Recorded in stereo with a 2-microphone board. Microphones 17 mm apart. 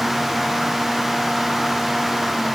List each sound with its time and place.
Only background noise.